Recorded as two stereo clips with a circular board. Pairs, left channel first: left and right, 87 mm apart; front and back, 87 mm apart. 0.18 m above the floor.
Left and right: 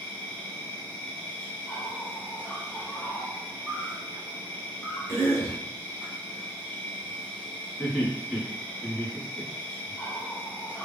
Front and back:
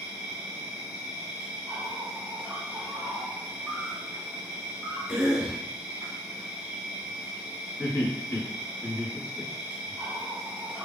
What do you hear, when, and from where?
0.0 s an insect: 130° left, 1.0 m
5.1 s a cough: 110° left, 1.3 m
7.8 s laughter: 5° right, 1.2 m